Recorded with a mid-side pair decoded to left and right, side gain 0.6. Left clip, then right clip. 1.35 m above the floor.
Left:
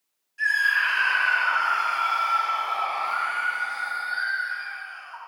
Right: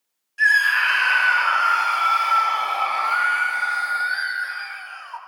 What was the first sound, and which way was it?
A scream, 50° right.